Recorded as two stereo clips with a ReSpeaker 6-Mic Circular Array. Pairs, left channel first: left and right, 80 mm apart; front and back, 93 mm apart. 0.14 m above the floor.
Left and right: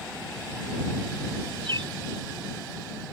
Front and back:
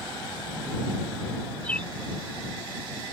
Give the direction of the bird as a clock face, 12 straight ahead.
3 o'clock.